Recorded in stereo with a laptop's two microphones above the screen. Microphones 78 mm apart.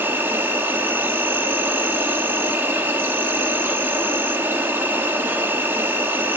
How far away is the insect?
About 2.0 m.